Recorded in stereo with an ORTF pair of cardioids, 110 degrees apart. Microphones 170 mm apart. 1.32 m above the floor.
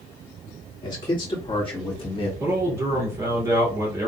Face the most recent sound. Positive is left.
turn(degrees=-15)